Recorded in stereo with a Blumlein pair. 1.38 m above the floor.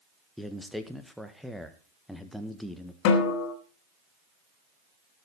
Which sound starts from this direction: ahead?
A man speaking, at 0.4 s.